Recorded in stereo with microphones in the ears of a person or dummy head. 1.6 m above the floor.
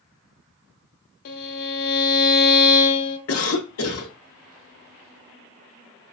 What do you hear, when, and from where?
1.2 s a violin: 50° left (ahead or behind), 0.7 m
3.3 s a cough: 85° left, 0.7 m